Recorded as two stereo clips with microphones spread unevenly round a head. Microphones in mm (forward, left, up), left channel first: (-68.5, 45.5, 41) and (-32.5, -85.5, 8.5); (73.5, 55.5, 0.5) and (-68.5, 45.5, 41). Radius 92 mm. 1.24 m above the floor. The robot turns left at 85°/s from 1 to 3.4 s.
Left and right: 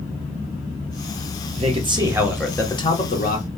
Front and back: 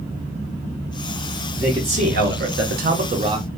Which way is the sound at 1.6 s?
90° right.